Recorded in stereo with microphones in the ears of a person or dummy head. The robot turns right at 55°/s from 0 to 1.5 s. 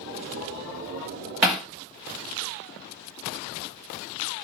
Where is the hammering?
5° right (ahead or behind), 1.8 m; by 1.7 s centre (ahead or behind), 1.8 m.